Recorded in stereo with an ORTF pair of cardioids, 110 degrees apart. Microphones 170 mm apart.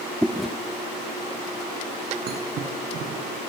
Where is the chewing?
Straight ahead, 1.1 m.